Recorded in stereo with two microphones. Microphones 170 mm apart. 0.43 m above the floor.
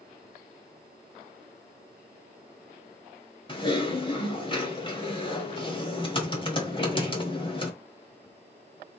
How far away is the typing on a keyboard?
About 1.2 m.